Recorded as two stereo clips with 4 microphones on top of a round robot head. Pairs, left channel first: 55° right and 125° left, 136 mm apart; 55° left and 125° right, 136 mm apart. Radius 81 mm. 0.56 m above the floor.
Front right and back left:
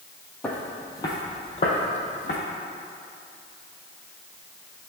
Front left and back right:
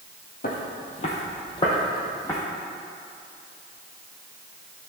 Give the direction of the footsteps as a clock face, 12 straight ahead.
11 o'clock.